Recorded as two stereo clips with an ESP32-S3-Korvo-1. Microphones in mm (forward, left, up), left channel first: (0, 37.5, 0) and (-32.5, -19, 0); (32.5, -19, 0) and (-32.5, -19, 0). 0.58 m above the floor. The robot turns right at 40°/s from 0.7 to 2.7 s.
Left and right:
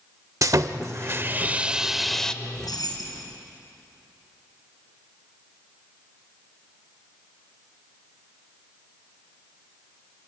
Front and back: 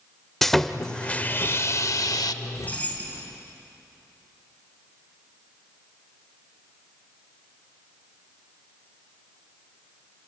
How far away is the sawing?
About 0.6 m.